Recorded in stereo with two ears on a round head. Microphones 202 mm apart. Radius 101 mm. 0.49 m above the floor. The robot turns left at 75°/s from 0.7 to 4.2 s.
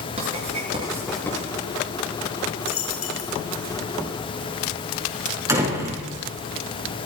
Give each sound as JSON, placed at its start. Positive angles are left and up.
{"t": 0.2, "sound": "writing", "side_deg": -30, "distance_m": 8.0}
{"t": 2.6, "sound": "a dropped coin", "azimuth_deg": 140, "distance_m": 4.5}
{"t": 5.5, "sound": "a door slam", "side_deg": -15, "distance_m": 5.0}